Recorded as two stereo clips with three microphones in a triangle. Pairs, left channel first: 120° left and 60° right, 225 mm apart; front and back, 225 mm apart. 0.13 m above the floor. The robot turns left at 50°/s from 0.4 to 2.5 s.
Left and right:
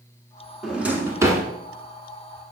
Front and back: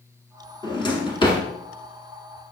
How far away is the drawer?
About 0.8 m.